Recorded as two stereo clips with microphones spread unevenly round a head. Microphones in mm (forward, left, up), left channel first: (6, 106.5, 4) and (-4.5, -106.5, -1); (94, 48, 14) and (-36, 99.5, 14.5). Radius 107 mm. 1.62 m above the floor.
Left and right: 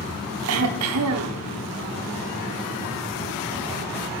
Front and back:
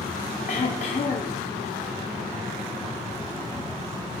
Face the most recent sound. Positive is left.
turn(degrees=-80)